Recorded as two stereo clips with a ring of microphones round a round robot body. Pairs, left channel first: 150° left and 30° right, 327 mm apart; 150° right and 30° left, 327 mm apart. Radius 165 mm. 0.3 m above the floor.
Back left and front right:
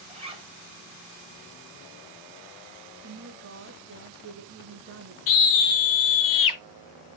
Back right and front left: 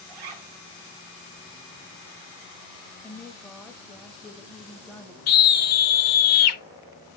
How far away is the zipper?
About 2.5 m.